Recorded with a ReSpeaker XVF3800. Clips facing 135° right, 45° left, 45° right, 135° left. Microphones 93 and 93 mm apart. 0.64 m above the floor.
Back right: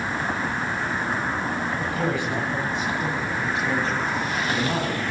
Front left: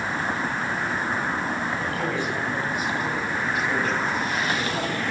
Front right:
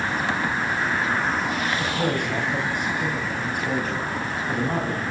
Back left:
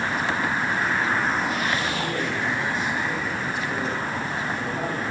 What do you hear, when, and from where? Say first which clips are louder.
1.8 s a man speaking: back right 1 dB, front right 2 dB; 60° right, 4 m; by 5.0 s 85° right, 6 m